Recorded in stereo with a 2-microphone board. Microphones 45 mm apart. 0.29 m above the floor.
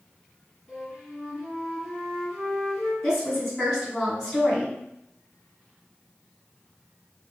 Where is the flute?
10° left (ahead or behind), 1.7 m.